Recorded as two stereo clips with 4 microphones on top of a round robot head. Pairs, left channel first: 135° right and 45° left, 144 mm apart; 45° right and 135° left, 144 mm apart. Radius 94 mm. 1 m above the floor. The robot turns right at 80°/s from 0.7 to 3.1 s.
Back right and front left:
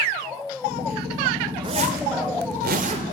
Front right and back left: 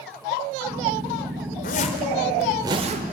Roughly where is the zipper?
Ahead.